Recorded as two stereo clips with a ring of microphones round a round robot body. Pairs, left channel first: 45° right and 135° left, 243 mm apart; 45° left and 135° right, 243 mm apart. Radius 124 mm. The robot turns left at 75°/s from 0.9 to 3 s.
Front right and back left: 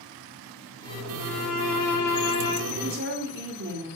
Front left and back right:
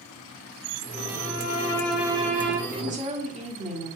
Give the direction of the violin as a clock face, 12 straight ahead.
12 o'clock.